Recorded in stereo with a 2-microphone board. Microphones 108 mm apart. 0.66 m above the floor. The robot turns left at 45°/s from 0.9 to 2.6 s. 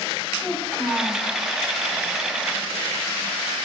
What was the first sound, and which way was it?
A child speaking, 10° left (ahead or behind).